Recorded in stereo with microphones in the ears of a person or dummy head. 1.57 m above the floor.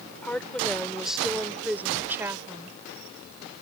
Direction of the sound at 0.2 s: 10° left (ahead or behind).